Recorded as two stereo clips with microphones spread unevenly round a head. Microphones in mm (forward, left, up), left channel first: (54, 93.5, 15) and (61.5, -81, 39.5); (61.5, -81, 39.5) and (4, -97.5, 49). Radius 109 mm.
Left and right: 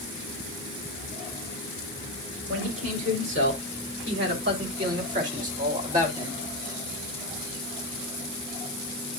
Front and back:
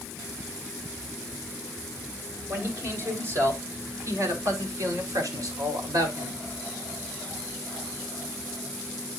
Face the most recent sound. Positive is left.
turn(degrees=-160)